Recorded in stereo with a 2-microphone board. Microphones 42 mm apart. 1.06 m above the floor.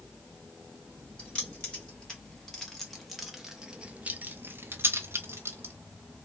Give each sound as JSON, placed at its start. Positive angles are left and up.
{"t": 1.2, "sound": "keys jangling", "side_deg": 20, "distance_m": 2.0}